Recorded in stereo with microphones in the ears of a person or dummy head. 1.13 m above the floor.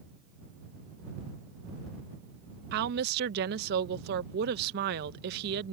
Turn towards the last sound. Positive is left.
turn(degrees=-55)  # may be behind; listen again after turning